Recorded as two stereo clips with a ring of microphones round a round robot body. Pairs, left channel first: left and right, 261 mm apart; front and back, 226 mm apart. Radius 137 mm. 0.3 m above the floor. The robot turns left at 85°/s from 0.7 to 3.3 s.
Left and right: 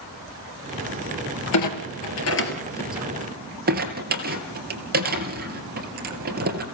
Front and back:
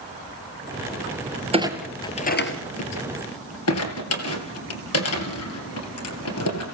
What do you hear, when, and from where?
1.5 s a clunk: 115° left, 3 m; by 6.6 s 35° right, 3 m